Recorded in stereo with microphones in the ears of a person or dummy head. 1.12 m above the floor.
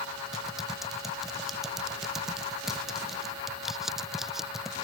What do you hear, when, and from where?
0.3 s typing on a keyboard: centre (ahead or behind)